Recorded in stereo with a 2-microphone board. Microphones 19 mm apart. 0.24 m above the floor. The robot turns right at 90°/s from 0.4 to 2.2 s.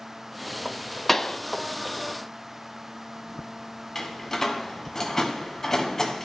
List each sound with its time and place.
1.1 s a pop: 15° left (ahead or behind), 0.5 m; by 1.4 s 35° left (ahead or behind), 0.5 m
4.0 s a door slam: 20° left (ahead or behind), 1.3 m